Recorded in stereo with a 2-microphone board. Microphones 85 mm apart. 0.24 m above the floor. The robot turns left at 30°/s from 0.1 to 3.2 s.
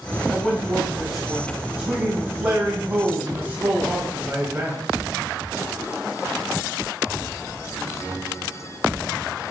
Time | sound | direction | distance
0.3 | a man speaking | 10° left (ahead or behind) | 1.0 m